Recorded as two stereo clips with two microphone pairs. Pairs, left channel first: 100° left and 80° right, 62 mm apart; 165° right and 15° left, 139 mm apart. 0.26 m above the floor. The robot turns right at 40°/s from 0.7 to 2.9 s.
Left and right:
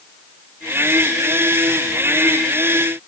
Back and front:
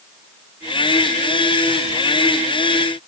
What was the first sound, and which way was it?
Only background noise.